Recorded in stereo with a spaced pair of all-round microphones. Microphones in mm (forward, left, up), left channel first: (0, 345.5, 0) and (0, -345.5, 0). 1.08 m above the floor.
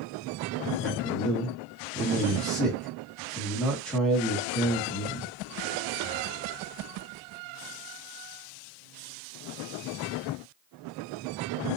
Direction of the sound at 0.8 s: Centre (ahead or behind).